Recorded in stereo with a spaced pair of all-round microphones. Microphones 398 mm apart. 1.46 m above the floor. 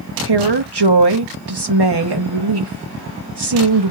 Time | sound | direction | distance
0.2 | a woman speaking | 80° right | 1.2 m